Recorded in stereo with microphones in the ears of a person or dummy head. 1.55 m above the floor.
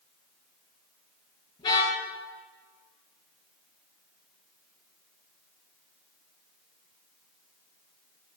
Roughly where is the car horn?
Left.